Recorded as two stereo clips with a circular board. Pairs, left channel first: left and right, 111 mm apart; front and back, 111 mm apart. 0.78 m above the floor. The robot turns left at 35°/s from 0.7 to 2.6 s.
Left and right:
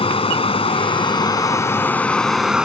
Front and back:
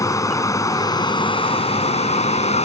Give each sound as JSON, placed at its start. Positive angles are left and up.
{"t": 0.0, "sound": "running water", "azimuth_deg": 60}